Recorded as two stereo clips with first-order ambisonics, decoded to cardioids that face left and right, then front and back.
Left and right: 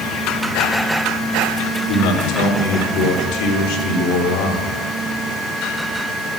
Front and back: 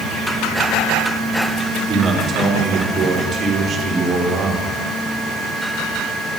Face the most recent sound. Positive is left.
turn(degrees=115)